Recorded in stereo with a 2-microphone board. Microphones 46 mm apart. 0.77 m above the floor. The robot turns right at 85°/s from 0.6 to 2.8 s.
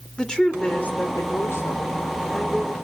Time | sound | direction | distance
0.2 | a woman speaking | 15° left | 2.5 m